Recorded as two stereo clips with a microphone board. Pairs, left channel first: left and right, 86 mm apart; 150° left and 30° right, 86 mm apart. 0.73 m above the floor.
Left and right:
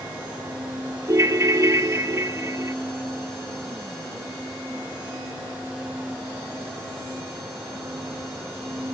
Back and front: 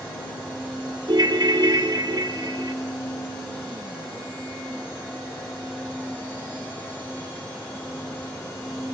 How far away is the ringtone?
About 0.7 m.